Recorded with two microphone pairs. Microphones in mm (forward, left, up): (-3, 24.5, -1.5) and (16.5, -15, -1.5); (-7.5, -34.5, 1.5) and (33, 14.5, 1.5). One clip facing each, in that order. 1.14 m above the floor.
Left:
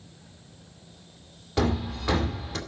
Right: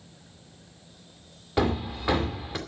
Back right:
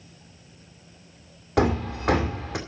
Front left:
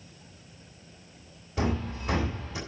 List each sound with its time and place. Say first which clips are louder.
1.6 s hammering: right 1 dB, back right 7 dB; 140° right, 2 m